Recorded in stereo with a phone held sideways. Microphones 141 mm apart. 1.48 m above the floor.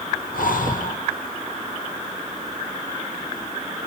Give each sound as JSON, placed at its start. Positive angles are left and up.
{"t": 0.3, "sound": "breathing", "side_deg": 75, "distance_m": 0.8}